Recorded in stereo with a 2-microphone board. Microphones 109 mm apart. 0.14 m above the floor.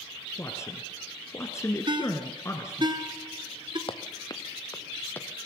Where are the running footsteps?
55° left (ahead or behind), 1.0 m; by 5.5 s 10° left (ahead or behind), 1.5 m.